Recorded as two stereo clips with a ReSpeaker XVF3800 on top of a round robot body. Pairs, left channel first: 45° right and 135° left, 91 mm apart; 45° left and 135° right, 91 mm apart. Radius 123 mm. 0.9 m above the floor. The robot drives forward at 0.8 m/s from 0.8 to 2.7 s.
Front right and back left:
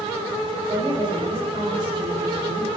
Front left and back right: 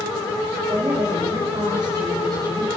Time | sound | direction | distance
0.7 | a woman speaking | 175° left | 3 m